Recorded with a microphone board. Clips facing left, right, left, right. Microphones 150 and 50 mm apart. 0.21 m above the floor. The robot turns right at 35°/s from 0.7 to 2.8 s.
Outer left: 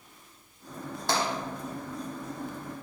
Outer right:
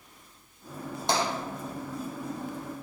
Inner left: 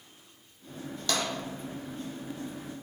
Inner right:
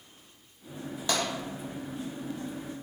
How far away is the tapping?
About 0.8 m.